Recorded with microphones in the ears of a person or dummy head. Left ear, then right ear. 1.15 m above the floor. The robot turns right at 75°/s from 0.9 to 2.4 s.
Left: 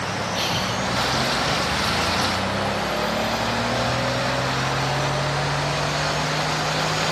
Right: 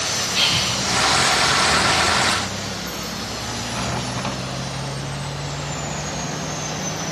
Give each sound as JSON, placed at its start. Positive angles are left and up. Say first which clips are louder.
{"t": 0.3, "sound": "breathing", "louder": "right 6 dB", "side_deg": -45, "distance_m": 6.0}